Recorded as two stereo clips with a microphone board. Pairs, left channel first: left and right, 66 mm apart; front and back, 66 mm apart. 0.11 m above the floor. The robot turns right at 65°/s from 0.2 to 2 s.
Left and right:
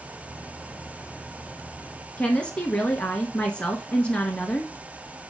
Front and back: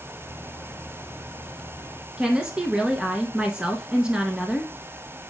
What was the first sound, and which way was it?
A woman speaking, 130° left.